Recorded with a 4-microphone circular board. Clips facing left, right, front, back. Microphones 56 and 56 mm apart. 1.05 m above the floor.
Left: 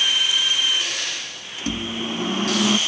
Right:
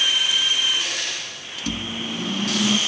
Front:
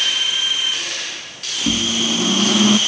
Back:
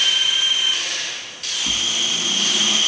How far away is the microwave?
About 1.5 m.